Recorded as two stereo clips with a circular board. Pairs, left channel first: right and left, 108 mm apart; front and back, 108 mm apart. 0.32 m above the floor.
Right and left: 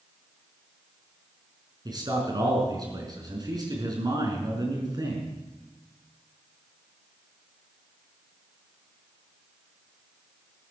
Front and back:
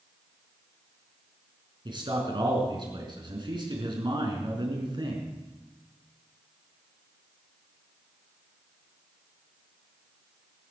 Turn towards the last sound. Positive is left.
turn(degrees=140)